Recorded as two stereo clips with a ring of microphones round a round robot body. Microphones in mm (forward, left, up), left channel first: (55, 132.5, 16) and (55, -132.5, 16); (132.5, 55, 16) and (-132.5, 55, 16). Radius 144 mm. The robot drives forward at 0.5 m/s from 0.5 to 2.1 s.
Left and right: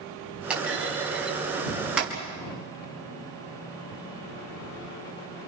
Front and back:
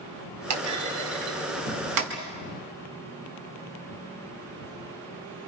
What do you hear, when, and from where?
0.5 s a clunk: 175° right, 3.5 m